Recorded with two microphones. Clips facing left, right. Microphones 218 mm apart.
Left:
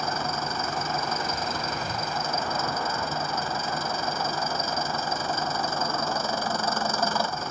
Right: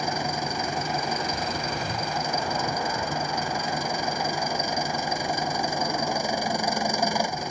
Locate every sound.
0.0 s an engine running: 15° right (ahead or behind)